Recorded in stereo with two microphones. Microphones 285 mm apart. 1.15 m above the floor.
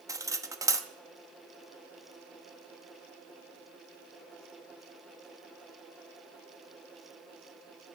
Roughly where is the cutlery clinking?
Centre.